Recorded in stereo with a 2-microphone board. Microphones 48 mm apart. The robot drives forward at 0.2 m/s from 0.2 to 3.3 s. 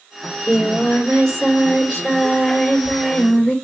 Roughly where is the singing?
Centre.